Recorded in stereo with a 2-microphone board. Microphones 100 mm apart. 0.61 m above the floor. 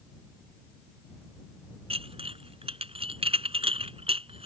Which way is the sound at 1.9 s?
85° right.